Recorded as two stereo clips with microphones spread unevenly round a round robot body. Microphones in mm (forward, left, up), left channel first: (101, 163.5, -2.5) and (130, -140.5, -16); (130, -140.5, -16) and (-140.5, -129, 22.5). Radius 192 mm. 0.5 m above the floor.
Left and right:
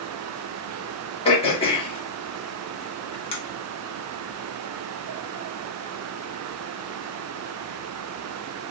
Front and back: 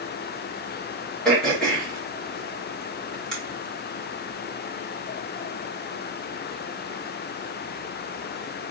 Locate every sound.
1.2 s throat clearing: 55° left, 1.3 m